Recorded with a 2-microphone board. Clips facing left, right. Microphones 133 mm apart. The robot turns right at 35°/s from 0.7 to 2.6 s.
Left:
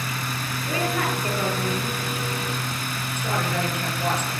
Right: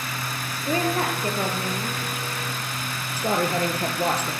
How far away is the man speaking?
About 2 m.